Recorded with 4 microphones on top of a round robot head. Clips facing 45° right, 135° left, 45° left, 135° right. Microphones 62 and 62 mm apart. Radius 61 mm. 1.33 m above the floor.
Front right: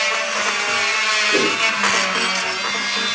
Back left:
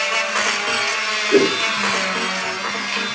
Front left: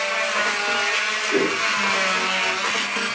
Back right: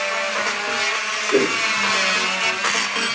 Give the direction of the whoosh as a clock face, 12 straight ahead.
7 o'clock.